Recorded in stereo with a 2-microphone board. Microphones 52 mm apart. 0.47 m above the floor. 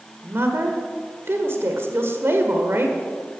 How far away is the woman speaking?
About 1.7 m.